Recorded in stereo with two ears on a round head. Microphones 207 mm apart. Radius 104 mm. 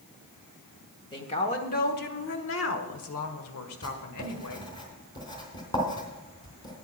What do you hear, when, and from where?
1.1 s a woman speaking: 20° left (ahead or behind), 1.2 m; by 4.7 s 75° left (ahead or behind), 2 m
3.8 s writing: 20° left (ahead or behind), 3 m